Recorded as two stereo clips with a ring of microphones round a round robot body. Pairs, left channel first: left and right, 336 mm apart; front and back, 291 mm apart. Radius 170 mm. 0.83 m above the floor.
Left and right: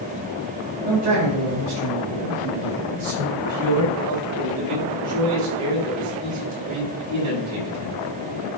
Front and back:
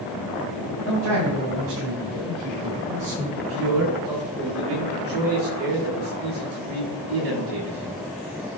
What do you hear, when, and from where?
0.8 s a man speaking: 140° right, 5 m; by 3.3 s 115° right, 4.5 m
3.4 s a man speaking: 130° right, 5 m